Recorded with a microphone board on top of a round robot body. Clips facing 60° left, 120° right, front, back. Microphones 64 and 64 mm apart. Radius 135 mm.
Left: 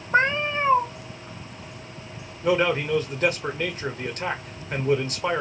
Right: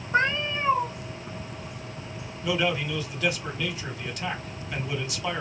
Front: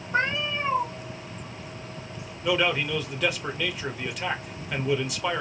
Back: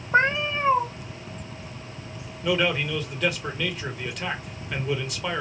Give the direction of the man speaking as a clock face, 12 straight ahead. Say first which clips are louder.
Left 5 dB, back 1 dB; 9 o'clock.